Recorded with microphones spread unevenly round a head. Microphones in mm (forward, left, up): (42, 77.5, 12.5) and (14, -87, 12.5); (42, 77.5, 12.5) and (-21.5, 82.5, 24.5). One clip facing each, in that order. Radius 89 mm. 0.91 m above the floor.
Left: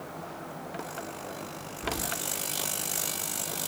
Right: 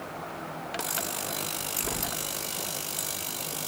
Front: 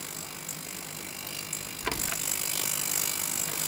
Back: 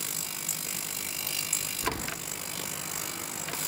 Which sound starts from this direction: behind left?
Keys jangling, at 1.8 s.